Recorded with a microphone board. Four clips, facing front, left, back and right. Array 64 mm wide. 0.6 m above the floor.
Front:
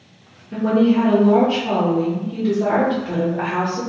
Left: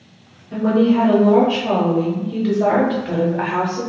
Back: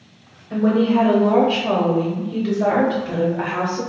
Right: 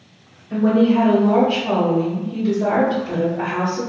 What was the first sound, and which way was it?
A woman speaking, 150° right.